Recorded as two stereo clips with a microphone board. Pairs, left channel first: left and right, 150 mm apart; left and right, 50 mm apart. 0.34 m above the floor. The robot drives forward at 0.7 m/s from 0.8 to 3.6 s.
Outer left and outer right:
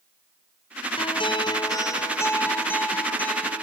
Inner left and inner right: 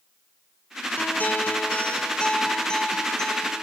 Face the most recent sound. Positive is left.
turn(degrees=10)  # may be behind; listen again after turning